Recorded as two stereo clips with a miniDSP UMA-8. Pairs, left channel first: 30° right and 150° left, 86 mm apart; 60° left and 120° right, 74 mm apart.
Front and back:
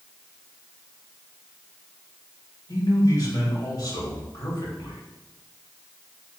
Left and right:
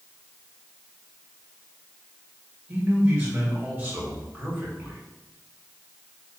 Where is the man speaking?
65° right, 1.6 m.